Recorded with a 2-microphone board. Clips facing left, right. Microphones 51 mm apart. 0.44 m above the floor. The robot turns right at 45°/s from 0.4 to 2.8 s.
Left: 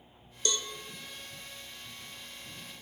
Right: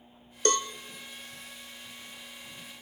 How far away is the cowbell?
About 0.8 m.